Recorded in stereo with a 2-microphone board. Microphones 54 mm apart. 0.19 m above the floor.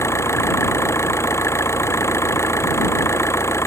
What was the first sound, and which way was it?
An engine running, 55° left (ahead or behind).